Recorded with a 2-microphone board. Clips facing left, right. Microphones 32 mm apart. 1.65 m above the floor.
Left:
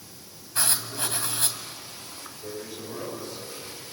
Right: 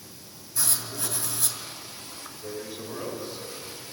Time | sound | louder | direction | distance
0.6 | writing | left 4 dB | 50° left (ahead or behind) | 2.5 m
2.3 | a man speaking | right 1 dB | 10° right (ahead or behind) | 7 m